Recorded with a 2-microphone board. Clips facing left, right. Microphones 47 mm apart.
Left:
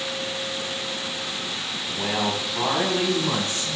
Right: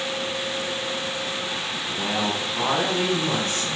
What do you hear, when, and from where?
1.9 s a man speaking: 5° left (ahead or behind), 3.5 m; by 3.8 s 20° left (ahead or behind), 4 m